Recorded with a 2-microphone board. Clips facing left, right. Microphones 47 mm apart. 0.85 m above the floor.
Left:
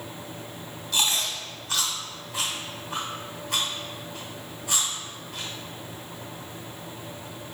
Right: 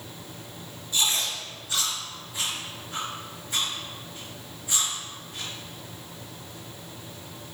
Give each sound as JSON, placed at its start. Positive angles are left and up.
{"t": 0.9, "sound": "chewing", "side_deg": 85, "distance_m": 2.5}